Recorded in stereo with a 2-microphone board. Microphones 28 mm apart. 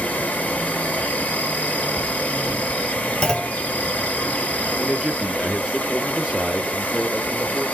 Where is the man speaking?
10° right (ahead or behind), 1.2 m.